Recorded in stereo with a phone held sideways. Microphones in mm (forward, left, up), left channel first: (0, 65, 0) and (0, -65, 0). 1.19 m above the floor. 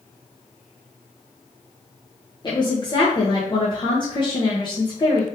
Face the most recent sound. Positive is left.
turn(degrees=35)  # may be behind; listen again after turning